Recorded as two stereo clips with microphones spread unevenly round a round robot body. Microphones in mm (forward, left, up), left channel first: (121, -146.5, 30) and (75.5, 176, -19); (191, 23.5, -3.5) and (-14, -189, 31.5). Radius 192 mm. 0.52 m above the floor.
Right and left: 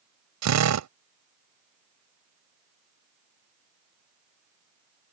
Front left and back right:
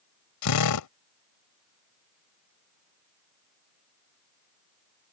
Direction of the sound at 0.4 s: 70° left.